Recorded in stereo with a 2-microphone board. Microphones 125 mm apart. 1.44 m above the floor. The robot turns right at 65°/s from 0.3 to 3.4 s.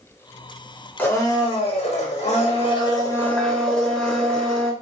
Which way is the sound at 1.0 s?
15° left.